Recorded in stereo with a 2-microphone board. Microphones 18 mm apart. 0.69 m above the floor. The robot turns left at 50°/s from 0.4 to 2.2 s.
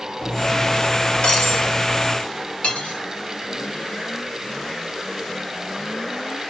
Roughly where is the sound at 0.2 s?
Behind.